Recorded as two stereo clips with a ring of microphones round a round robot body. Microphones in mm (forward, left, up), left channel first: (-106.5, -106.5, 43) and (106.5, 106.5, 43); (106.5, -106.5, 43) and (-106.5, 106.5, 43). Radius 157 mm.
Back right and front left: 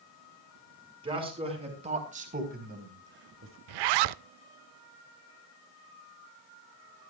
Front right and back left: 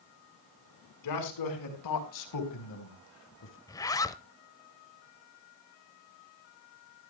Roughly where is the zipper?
Ahead left.